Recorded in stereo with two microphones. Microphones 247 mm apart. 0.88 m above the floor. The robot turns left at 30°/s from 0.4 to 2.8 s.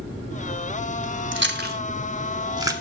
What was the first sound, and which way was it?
Chewing, 50° right (ahead or behind).